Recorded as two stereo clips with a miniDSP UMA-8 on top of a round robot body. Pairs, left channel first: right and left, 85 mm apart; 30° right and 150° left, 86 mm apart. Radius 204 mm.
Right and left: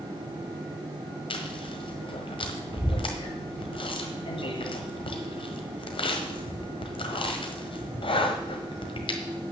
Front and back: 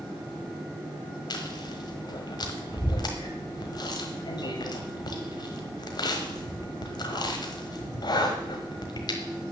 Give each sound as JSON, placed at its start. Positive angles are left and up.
{"t": 1.3, "sound": "chewing", "azimuth_deg": -70, "distance_m": 1.3}